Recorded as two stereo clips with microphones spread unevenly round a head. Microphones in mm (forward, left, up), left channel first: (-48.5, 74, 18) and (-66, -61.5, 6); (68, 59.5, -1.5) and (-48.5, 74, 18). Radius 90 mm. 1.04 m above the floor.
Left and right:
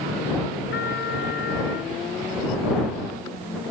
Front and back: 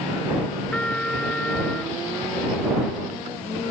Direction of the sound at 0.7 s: 75° left.